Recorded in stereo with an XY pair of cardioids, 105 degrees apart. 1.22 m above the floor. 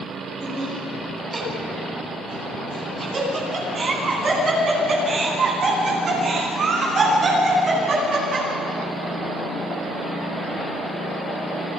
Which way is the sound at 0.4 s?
30° right.